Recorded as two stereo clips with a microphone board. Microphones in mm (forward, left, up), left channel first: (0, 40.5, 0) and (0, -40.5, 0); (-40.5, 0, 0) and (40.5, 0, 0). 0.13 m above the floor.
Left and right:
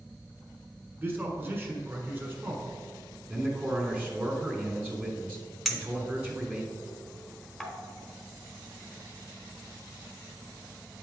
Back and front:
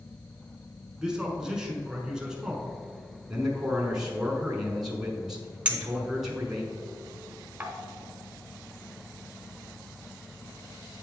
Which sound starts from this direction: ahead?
A clink, at 5.7 s.